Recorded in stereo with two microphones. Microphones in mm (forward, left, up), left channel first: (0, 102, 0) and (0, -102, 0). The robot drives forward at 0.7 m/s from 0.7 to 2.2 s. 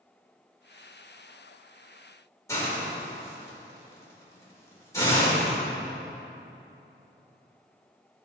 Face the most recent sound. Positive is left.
turn(degrees=15)  # may be behind; listen again after turning